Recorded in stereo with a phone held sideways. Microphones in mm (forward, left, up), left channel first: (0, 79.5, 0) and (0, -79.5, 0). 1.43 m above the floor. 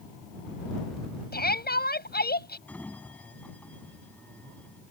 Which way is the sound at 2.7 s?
10° left (ahead or behind).